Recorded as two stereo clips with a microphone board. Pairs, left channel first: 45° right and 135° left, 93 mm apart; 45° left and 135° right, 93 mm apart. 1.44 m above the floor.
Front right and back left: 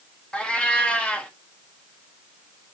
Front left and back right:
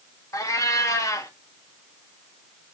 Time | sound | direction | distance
0.3 | a cat meowing | 25° left | 0.7 m